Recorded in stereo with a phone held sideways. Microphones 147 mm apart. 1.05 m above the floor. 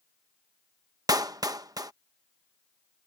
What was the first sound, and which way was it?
A clap, 25° right (ahead or behind).